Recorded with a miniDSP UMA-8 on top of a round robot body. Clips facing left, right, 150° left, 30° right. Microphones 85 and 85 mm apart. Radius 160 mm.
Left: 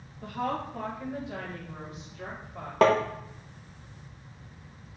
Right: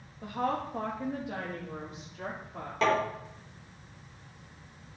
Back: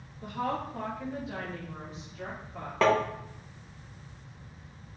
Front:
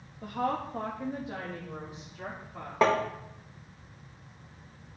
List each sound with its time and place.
0.2 s a woman speaking: 35° right, 1.5 m; by 2.7 s 115° right, 2.5 m
2.8 s tapping: 45° left, 0.7 m